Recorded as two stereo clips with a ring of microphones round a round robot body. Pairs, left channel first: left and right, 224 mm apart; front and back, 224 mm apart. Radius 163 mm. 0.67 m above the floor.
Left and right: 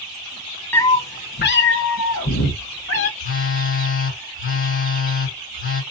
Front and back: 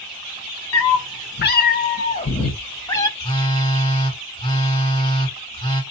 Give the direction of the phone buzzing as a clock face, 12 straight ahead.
10 o'clock.